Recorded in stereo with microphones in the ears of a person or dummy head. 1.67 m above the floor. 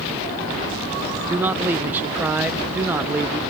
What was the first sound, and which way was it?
A man speaking, 15° right (ahead or behind).